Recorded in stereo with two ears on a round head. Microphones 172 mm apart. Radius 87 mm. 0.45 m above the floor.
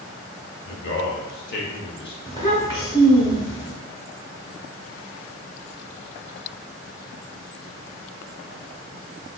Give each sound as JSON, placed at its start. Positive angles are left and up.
{"t": 0.7, "sound": "a man speaking", "side_deg": 60, "distance_m": 1.4}
{"t": 2.3, "sound": "a child speaking", "side_deg": 20, "distance_m": 1.0}